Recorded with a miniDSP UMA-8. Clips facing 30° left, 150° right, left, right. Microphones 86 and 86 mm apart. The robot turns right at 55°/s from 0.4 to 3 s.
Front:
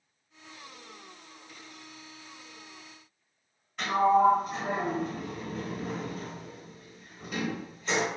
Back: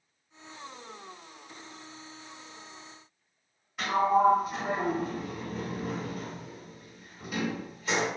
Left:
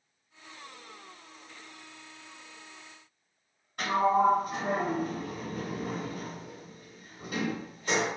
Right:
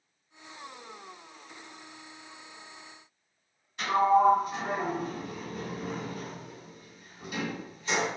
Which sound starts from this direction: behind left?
A sliding door, at 3.8 s.